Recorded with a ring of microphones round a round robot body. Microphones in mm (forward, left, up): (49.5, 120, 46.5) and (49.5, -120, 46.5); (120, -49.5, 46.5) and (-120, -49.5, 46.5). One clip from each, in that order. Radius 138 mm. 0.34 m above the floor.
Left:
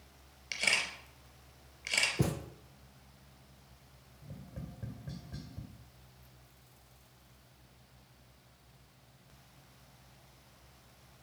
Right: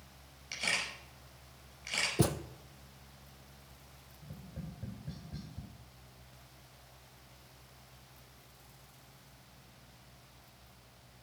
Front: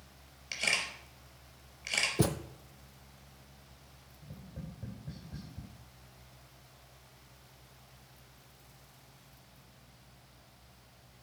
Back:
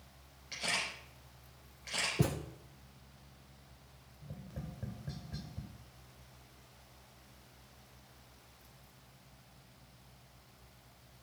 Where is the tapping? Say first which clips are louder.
Left 1 dB, back 1 dB; 145° left, 2.0 m.